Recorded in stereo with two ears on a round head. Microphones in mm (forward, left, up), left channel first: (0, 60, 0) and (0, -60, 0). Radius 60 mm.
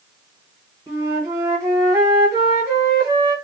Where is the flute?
25° right (ahead or behind), 1.1 m.